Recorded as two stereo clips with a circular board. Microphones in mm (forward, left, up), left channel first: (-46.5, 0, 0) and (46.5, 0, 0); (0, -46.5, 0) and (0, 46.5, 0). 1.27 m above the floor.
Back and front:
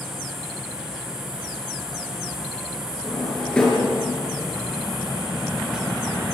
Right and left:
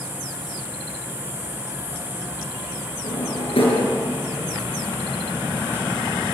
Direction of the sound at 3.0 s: 100° right.